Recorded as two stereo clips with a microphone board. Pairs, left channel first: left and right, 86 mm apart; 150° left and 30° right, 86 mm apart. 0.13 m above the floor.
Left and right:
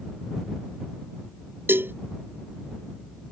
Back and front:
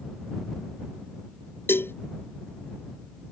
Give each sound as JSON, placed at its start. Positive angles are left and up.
{"t": 1.7, "sound": "a cowbell", "azimuth_deg": -150}